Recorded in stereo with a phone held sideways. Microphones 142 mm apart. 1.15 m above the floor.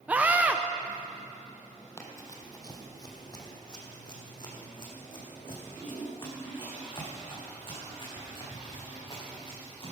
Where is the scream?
10° right (ahead or behind), 0.6 m.